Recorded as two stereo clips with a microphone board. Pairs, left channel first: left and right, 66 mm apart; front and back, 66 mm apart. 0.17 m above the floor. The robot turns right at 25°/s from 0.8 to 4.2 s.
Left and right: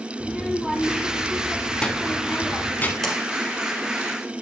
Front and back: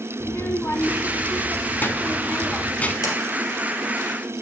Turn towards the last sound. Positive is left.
turn(degrees=30)